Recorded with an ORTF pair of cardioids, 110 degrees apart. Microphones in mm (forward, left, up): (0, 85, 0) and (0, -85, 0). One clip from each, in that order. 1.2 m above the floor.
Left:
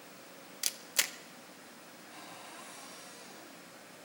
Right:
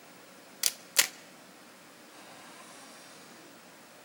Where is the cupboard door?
15° left, 6.5 m.